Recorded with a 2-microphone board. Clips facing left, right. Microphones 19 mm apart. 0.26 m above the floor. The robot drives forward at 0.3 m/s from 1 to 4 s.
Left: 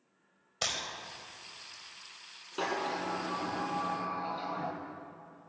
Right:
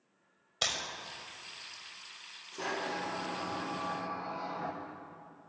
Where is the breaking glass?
40° right (ahead or behind), 4 m.